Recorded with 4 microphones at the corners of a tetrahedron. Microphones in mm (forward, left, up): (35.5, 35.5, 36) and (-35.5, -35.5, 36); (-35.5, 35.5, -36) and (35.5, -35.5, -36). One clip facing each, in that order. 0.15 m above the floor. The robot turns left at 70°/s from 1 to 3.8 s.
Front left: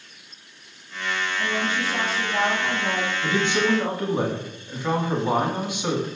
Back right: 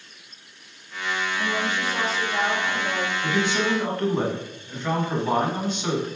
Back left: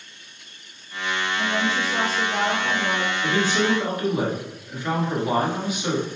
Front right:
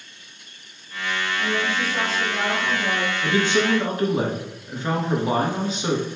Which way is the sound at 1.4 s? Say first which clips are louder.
Front left 1 dB, even; 175° right.